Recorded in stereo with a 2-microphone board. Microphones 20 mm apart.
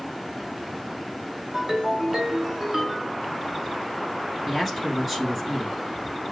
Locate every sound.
1.5 s a ringtone: 30° right (ahead or behind), 2.0 m
4.5 s a man speaking: 15° right (ahead or behind), 1.2 m